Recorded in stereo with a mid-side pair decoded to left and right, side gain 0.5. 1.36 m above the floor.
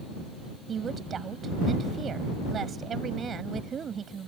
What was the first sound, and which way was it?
A woman speaking, 45° right.